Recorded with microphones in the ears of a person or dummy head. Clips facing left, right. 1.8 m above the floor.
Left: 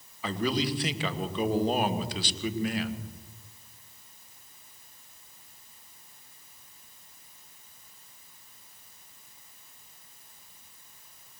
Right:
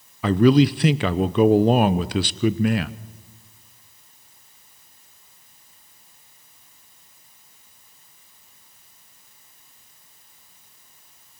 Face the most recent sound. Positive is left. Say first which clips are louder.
# right 14 dB
turn(degrees=-50)  # may be behind; listen again after turning